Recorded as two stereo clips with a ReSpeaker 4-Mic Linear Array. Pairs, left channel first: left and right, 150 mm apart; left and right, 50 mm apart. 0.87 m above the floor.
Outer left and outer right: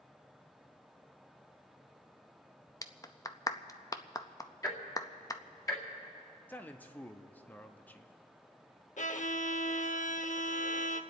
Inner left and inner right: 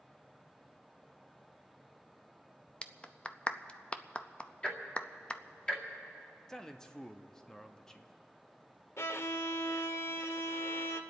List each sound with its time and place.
2.8 s a clap: 20° left (ahead or behind), 0.5 m
4.6 s ticking: 20° left (ahead or behind), 2 m
6.5 s a man speaking: 10° left (ahead or behind), 0.9 m
9.0 s a violin: 50° left (ahead or behind), 0.7 m